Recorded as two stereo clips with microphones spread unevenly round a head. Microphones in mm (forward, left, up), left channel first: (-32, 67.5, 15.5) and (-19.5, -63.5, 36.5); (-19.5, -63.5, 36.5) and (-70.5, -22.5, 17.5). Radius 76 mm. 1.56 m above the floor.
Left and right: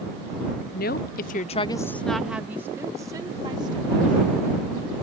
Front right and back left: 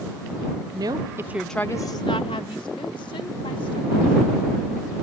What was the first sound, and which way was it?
A woman speaking, 100° left.